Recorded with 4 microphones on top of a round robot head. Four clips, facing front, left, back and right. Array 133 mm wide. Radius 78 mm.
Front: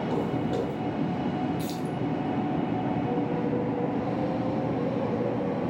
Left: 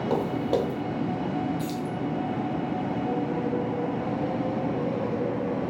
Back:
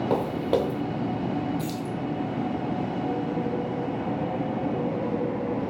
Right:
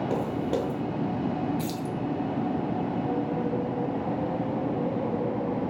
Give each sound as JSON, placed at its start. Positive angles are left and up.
{"t": 0.1, "sound": "footsteps", "azimuth_deg": 155, "distance_m": 0.6}
{"t": 1.6, "sound": "keys jangling", "azimuth_deg": -90, "distance_m": 3.0}